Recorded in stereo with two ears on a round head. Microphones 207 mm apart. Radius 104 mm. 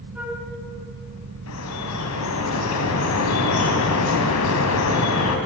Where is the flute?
5° right (ahead or behind), 3.5 m.